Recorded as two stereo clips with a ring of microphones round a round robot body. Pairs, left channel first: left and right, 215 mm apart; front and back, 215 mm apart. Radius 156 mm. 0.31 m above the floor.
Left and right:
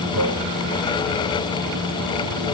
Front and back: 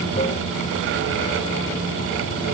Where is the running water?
70° right.